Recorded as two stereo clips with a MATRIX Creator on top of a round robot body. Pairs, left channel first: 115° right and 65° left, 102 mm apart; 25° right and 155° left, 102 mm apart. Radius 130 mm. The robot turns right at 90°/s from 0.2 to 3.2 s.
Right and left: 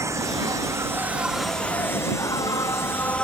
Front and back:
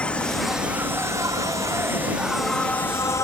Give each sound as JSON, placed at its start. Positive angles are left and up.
{"t": 0.0, "sound": "an insect", "azimuth_deg": 45}